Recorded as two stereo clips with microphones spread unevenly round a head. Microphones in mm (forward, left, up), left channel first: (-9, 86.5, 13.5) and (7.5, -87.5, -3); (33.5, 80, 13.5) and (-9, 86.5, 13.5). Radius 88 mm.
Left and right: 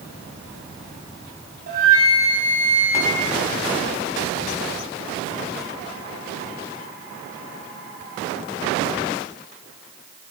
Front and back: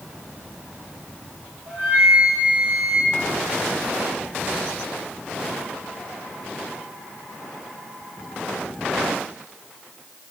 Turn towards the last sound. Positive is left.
turn(degrees=-120)